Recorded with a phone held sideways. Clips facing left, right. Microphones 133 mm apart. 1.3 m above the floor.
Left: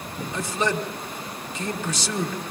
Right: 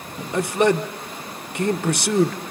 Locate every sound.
0.3 s a man speaking: 60° right (ahead or behind), 1.2 m